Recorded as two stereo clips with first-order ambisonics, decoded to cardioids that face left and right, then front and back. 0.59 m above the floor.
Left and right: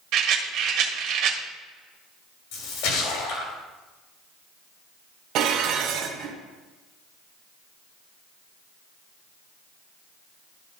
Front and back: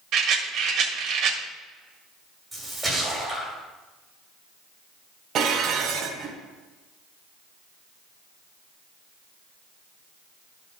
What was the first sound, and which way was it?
A rattle, 130° right.